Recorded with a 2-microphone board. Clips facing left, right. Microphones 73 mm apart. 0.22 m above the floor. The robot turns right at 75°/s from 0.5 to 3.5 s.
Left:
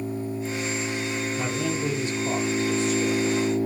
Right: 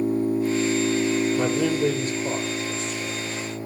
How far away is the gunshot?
No gunshot in this recording.